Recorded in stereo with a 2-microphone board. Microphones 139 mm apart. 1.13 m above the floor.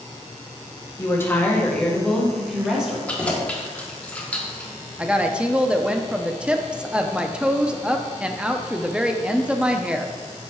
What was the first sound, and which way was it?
A woman speaking, 25° left (ahead or behind).